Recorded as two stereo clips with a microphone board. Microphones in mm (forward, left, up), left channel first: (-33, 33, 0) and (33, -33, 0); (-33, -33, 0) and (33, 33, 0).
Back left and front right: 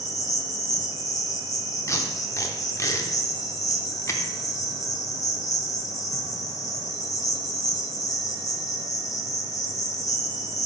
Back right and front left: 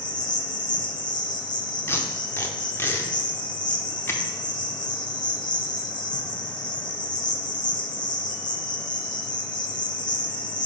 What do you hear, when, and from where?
0.0 s an insect: 175° right, 0.7 m
1.9 s tape being pulled: 175° left, 0.8 m